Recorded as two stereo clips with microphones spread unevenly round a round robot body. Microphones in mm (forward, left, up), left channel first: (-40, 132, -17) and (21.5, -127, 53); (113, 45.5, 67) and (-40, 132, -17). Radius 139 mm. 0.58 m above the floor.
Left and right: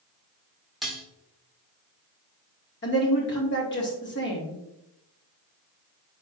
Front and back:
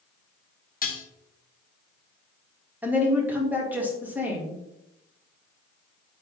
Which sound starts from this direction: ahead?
Dishes clattering, at 0.8 s.